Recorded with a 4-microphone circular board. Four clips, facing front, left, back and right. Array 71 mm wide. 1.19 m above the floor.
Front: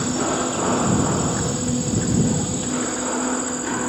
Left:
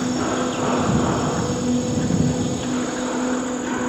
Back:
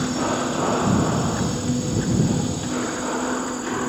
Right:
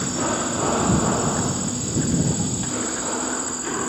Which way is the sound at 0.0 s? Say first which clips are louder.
Left 3 dB, front 1 dB; 80° left.